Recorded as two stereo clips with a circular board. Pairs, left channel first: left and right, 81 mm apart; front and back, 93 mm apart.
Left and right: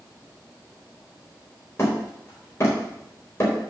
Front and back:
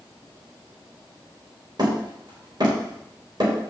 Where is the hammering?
145° left, 3.5 m.